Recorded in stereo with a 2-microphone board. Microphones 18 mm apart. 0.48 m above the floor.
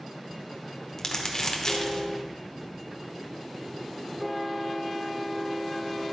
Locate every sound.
1.0 s crumpling: 30° left (ahead or behind), 0.9 m